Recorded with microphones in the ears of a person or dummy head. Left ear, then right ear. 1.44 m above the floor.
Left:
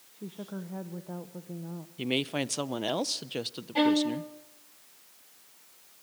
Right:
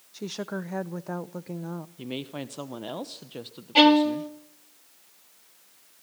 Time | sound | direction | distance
0.1 | a woman speaking | 70° right (ahead or behind) | 0.6 m
2.0 | a woman speaking | 30° left (ahead or behind) | 0.8 m
3.8 | a violin | 45° right (ahead or behind) | 1.2 m